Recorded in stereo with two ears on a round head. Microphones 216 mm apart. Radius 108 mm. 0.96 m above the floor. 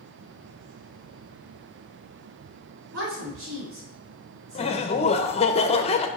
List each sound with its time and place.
2.9 s a woman speaking: 55° right (ahead or behind), 3 m
4.5 s laughter: 25° left (ahead or behind), 0.7 m